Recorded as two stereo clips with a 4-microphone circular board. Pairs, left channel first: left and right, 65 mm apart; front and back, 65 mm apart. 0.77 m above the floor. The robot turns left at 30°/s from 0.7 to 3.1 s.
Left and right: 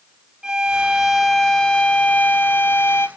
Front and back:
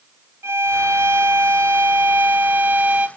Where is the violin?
165° right, 0.6 m; by 3.1 s 125° left, 0.6 m.